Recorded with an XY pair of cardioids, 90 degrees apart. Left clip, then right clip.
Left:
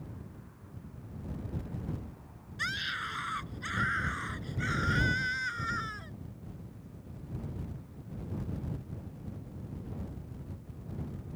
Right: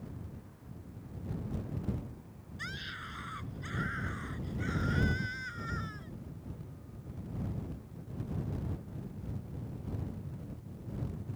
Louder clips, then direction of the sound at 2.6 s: Left 8 dB; 60° left.